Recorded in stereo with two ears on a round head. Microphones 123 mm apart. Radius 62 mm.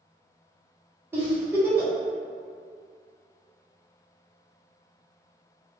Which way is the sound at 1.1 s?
15° right (ahead or behind).